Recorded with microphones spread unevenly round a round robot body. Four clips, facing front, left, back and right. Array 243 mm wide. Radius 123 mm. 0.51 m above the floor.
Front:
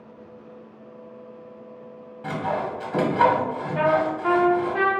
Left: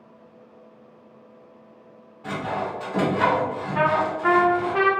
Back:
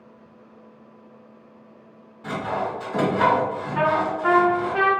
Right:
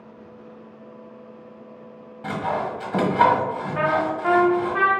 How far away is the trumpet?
About 1.1 m.